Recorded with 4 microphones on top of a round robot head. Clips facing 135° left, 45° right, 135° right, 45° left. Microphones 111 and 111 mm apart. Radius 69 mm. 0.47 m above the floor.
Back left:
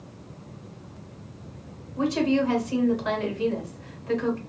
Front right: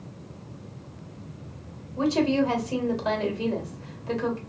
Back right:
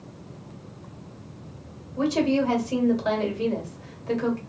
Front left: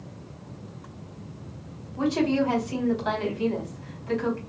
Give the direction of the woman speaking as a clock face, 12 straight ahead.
3 o'clock.